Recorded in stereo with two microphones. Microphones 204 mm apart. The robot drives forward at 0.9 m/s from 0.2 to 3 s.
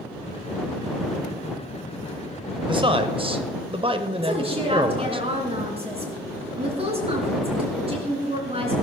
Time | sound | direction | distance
2.7 | a man speaking | 25° right (ahead or behind) | 1.1 m
4.2 | a woman speaking | 30° right (ahead or behind) | 3 m